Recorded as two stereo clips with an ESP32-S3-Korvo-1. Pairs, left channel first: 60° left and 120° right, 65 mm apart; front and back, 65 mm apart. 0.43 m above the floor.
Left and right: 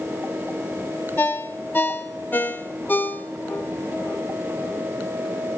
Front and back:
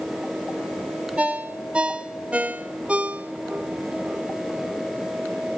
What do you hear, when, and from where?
1.2 s a ringtone: 115° left, 0.6 m